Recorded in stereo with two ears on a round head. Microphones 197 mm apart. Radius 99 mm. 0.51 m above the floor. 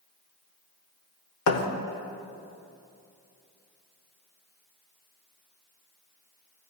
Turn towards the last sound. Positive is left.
turn(degrees=70)  # may be behind; listen again after turning